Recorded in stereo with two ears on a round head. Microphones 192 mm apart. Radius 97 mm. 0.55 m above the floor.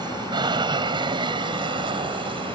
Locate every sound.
0.0 s an aircraft: 25° right (ahead or behind)